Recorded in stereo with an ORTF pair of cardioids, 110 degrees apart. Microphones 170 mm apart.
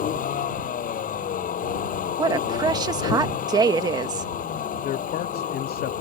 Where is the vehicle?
55° left.